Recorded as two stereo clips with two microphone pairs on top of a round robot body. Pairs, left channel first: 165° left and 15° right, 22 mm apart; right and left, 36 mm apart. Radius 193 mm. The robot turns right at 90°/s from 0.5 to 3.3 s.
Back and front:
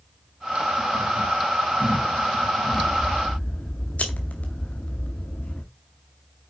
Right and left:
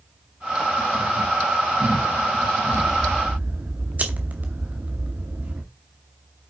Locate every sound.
2.7 s scissors: 85° left, 0.6 m; by 5.6 s 140° left, 0.6 m